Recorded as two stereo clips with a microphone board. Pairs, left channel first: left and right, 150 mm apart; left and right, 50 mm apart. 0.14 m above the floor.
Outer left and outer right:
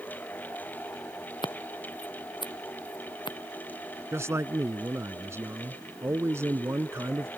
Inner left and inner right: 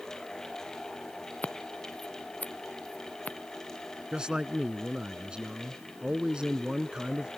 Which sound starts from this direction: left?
Scissors, at 1.4 s.